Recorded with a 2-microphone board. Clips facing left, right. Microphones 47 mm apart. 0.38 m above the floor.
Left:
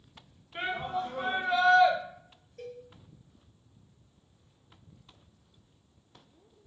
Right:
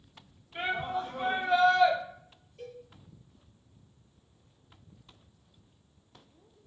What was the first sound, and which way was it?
A shout, 30° left (ahead or behind).